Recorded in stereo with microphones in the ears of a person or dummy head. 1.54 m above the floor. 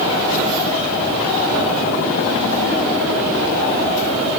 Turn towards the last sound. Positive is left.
No sound to turn to.